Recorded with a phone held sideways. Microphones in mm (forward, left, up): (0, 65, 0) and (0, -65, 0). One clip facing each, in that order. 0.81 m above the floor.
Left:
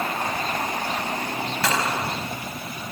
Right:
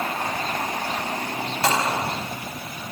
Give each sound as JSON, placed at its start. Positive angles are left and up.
{"t": 1.6, "sound": "a gunshot", "side_deg": -30, "distance_m": 4.5}